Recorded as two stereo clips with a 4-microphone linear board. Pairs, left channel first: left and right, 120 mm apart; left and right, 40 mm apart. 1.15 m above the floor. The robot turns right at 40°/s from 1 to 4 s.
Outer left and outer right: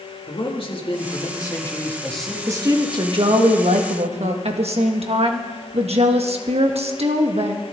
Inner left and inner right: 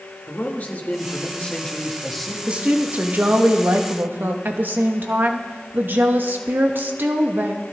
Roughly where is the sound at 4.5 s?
Right.